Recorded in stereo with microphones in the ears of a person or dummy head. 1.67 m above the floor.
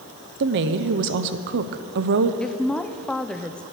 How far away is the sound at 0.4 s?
About 0.7 m.